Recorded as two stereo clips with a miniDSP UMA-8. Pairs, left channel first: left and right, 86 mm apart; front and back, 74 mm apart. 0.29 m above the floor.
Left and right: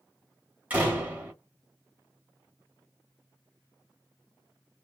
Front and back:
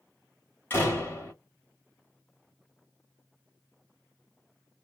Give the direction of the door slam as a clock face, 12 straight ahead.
1 o'clock.